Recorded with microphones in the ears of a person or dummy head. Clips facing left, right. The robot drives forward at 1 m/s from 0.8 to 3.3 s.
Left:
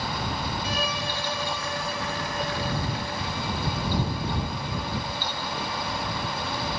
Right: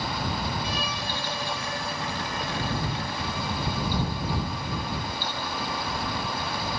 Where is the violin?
45° left (ahead or behind); by 6.8 s 20° left (ahead or behind).